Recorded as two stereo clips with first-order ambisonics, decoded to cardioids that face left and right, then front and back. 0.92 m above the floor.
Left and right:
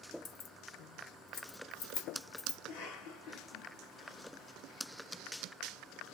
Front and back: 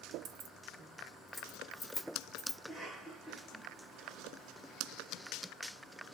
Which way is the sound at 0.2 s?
135° left.